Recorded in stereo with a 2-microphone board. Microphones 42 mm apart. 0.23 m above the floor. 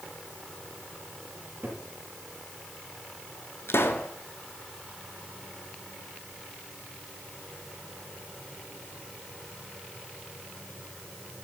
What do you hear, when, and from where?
1.4 s a cupboard door: 50° right (ahead or behind), 6 m
3.7 s a pop: 75° left (ahead or behind), 1.3 m